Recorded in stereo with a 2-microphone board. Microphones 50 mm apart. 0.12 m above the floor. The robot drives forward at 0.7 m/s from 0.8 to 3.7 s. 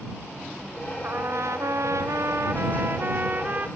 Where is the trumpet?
55° right (ahead or behind), 0.9 m; by 3.7 s 30° right (ahead or behind), 1.5 m.